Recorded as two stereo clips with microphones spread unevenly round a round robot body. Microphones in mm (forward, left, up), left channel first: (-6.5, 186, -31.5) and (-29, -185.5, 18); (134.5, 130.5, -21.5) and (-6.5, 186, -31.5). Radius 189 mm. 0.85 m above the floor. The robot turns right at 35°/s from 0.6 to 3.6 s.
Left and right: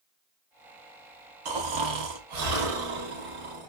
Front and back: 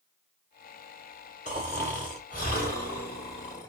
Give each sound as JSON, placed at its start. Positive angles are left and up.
{"t": 1.4, "sound": "snoring", "azimuth_deg": -130, "distance_m": 1.0}